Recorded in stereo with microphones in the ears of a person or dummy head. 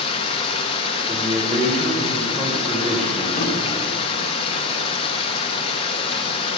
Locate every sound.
0.0 s running water: 30° left (ahead or behind), 0.9 m
1.1 s a man speaking: 5° left (ahead or behind), 1.5 m
3.4 s a drawer: 45° left (ahead or behind), 2 m